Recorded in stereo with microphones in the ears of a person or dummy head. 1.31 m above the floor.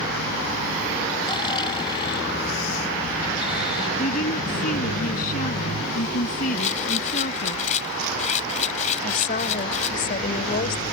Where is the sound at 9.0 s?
50° left (ahead or behind).